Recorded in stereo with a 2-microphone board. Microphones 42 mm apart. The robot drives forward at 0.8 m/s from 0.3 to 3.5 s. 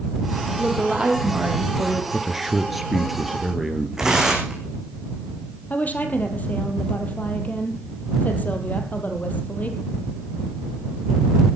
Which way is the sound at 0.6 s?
20° right (ahead or behind).